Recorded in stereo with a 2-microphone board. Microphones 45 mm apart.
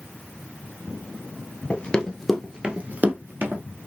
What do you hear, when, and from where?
1.7 s running footsteps: 25° left (ahead or behind), 1.1 m; by 3.6 s 55° right (ahead or behind), 1.5 m